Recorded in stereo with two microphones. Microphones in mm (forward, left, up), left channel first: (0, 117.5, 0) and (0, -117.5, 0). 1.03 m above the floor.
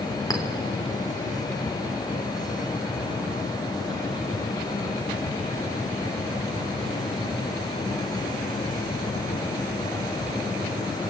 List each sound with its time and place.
0.3 s a clink: 15° left (ahead or behind), 2.5 m